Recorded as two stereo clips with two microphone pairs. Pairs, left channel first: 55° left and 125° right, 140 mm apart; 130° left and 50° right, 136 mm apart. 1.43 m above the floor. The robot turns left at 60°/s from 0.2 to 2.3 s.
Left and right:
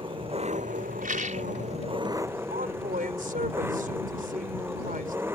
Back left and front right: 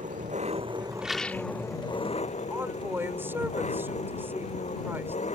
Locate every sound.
0.0 s an engine running: 70° right; by 5.3 s 165° left
1.0 s a rattle: 130° right; by 1.5 s 160° right
2.5 s a woman speaking: 125° right